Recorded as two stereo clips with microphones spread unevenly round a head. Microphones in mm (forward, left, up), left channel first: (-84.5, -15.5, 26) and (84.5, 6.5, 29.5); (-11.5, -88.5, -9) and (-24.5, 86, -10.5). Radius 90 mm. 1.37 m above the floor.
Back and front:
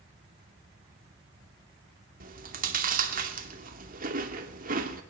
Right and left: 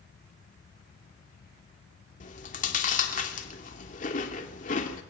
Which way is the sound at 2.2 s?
35° right.